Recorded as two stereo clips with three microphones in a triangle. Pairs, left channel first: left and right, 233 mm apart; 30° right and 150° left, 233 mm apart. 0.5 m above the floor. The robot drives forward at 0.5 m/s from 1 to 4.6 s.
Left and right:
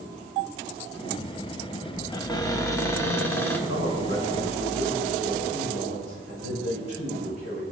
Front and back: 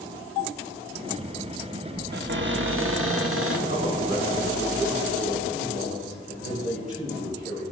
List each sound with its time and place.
2.1 s a cupboard door: 155° left, 0.6 m; by 3.6 s 170° left, 1.2 m
3.7 s a man speaking: 90° left, 4.5 m; by 7.6 s 100° left, 4.5 m